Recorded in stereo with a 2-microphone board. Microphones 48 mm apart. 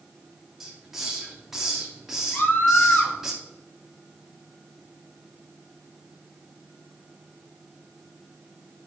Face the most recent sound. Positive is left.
turn(degrees=50)  # may be behind; listen again after turning